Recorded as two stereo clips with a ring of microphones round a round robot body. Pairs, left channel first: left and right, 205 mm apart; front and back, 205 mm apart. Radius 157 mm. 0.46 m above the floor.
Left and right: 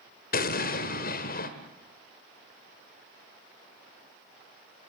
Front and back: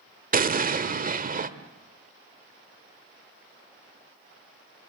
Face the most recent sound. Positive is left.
turn(degrees=135)